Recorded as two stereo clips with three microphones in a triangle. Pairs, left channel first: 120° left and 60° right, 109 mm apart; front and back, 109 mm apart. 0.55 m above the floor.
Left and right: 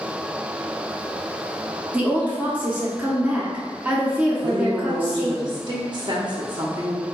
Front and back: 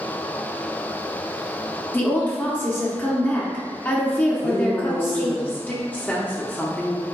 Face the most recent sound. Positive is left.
turn(degrees=-70)